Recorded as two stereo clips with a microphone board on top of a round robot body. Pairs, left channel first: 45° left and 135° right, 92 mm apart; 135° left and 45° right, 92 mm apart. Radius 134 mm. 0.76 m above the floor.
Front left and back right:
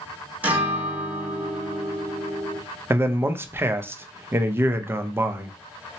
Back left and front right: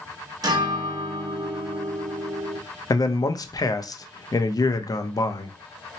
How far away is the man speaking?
About 0.6 m.